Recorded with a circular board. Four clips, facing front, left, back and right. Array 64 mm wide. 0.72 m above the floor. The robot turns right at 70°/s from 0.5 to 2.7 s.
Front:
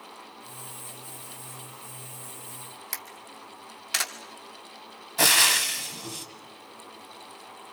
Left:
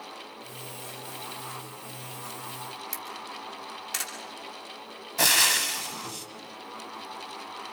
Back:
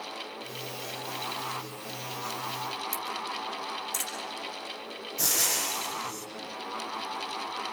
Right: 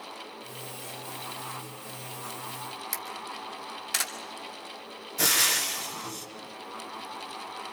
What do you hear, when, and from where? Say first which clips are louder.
2.9 s a camera shutter: right 1 dB, back 8 dB; 10° right, 2 m
5.2 s frying: left 3 dB, front 10 dB; 35° left, 1.9 m